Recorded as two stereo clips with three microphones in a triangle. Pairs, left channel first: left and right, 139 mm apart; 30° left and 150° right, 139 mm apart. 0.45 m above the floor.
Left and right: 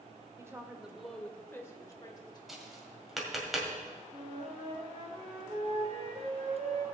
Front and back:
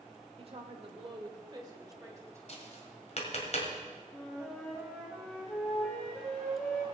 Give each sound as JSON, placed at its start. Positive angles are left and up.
{"t": 0.4, "sound": "a woman speaking", "azimuth_deg": -150, "distance_m": 1.4}
{"t": 2.5, "sound": "tapping", "azimuth_deg": 0, "distance_m": 2.0}
{"t": 4.1, "sound": "a flute", "azimuth_deg": -55, "distance_m": 2.0}